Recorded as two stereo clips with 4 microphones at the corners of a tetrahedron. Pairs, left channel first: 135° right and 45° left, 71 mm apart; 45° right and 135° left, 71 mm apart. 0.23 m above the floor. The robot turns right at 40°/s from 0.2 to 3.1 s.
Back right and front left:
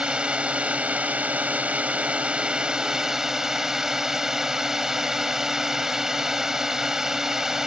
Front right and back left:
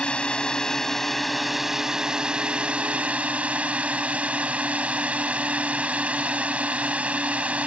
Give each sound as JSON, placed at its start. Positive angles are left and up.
{"t": 0.0, "sound": "a drone", "azimuth_deg": 0}